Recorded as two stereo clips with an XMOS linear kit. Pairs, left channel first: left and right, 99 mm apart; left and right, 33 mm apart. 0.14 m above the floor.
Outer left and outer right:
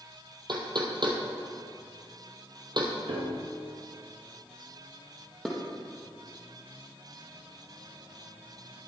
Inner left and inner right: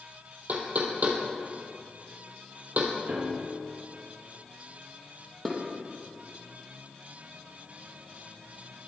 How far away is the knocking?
About 2.5 m.